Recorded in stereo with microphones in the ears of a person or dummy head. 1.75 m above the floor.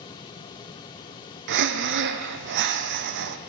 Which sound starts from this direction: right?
Breathing, at 1.5 s.